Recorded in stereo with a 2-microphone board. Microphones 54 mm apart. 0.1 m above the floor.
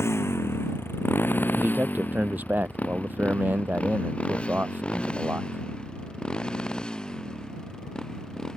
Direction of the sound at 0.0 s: 60° left (ahead or behind).